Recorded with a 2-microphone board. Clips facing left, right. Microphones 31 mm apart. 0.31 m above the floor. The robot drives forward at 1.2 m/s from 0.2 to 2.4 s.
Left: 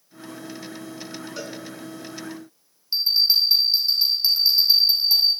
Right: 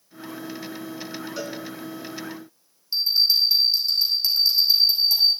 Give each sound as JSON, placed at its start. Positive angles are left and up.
{"t": 1.4, "sound": "a cowbell", "side_deg": 5, "distance_m": 1.4}
{"t": 2.9, "sound": "a bell", "side_deg": 25, "distance_m": 4.0}